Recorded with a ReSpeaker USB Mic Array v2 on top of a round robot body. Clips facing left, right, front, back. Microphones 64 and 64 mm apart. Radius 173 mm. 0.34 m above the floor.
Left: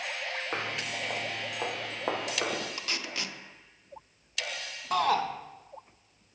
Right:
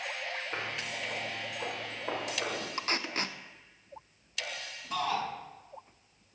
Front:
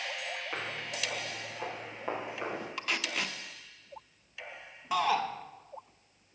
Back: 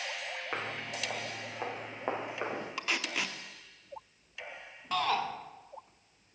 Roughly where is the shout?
Left.